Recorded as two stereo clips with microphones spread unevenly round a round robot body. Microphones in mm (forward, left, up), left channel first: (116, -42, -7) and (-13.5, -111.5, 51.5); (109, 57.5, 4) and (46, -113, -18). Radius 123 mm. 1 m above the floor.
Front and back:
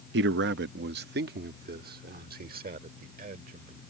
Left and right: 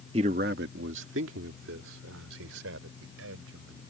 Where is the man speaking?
175° right; by 3.8 s 130° right.